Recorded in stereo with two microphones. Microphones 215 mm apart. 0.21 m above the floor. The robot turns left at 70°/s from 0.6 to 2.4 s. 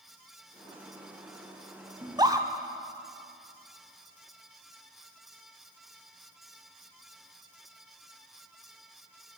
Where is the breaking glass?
I don't hear breaking glass.